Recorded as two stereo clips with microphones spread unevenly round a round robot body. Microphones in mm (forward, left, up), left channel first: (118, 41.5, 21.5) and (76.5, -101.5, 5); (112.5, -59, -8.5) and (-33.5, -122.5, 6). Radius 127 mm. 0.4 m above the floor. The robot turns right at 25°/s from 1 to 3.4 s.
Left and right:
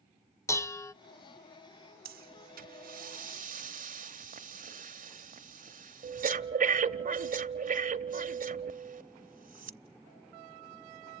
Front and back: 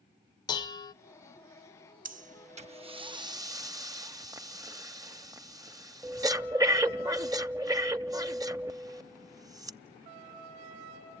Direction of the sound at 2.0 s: 120° right.